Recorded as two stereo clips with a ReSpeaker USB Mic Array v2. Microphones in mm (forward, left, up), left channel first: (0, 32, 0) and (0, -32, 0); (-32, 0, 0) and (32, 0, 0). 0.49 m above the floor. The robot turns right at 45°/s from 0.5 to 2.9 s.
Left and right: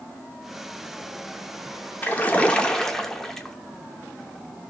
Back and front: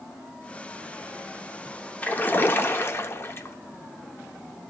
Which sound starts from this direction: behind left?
A splash, at 2.0 s.